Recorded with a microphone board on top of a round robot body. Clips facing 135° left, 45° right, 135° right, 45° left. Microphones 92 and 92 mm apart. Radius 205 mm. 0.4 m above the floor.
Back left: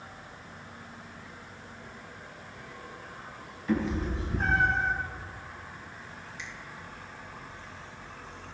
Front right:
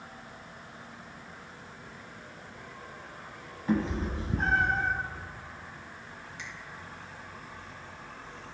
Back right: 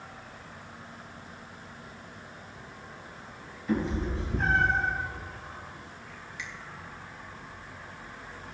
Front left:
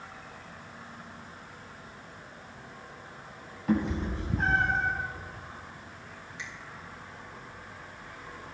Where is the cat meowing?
10° left, 2.5 m; by 4.9 s 5° right, 3 m.